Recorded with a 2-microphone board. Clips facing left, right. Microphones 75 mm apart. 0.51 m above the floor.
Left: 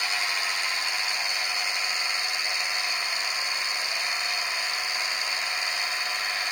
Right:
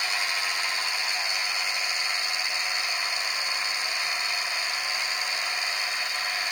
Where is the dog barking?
No dog barking in this recording.